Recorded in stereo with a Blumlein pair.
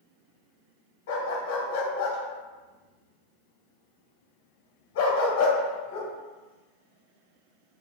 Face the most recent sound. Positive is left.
turn(degrees=55)